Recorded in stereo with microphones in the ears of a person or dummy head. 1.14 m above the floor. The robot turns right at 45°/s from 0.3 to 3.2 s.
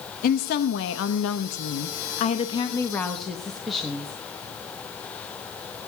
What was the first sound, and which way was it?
A woman speaking, 50° left.